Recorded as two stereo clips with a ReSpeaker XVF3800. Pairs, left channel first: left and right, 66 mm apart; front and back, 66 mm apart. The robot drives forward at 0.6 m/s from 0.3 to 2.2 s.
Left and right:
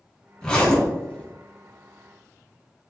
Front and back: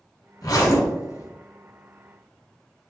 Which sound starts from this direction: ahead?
A zipper, at 0.4 s.